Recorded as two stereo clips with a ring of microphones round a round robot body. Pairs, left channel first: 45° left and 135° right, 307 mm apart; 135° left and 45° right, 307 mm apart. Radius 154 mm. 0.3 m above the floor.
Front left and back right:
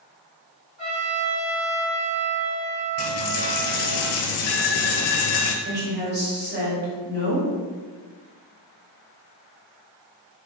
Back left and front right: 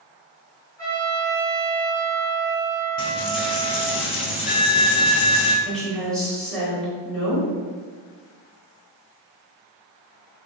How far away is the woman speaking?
About 1.2 m.